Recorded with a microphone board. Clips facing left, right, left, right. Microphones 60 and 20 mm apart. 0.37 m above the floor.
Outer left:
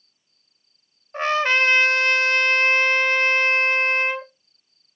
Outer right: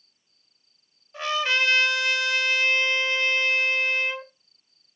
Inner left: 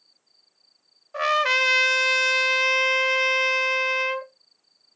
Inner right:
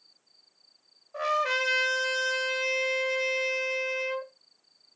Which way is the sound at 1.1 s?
50° left (ahead or behind).